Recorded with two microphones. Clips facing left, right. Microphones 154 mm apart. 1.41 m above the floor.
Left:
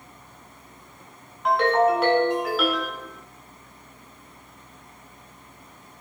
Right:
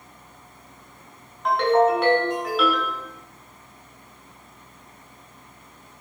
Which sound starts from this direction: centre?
A ringtone, at 1.4 s.